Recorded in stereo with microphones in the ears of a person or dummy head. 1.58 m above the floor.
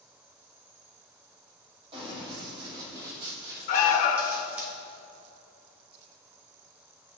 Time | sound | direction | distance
1.9 | running footsteps | 35° right (ahead or behind) | 3 m
3.7 | an alarm | 50° left (ahead or behind) | 1.1 m